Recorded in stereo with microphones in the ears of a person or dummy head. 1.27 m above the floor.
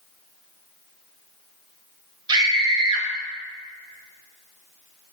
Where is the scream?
25° right (ahead or behind), 2 m.